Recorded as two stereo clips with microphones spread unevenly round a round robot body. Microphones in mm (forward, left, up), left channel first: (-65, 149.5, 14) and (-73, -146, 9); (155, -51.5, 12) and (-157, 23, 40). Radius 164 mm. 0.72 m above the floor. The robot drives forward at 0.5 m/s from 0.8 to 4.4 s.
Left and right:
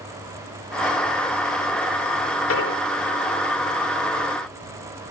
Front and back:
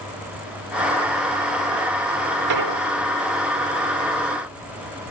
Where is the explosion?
130° left; by 2.8 s 135° left.